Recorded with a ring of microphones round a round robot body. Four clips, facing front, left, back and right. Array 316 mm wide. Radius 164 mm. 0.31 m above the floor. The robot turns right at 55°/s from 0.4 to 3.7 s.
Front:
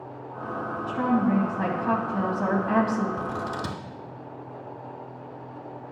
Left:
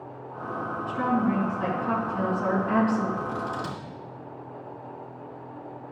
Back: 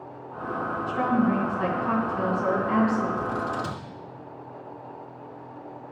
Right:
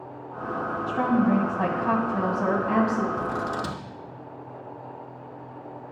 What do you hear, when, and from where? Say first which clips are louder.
0.9 s a woman speaking: right 3 dB, even; 115° right, 2 m; by 3.1 s 5° left, 2 m
3.2 s scissors: right 2 dB, back 2 dB; 50° right, 1.0 m; by 3.8 s 20° right, 1.0 m